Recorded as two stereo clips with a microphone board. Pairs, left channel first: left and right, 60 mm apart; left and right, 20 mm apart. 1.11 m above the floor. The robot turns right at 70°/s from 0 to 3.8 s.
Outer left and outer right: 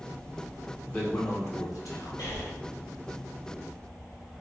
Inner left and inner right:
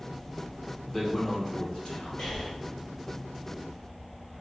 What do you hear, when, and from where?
0.9 s a man speaking: 20° left, 1.6 m; by 2.3 s 120° left, 1.6 m
2.2 s breathing: 55° left (ahead or behind), 2.5 m; by 2.5 s 35° left (ahead or behind), 2.5 m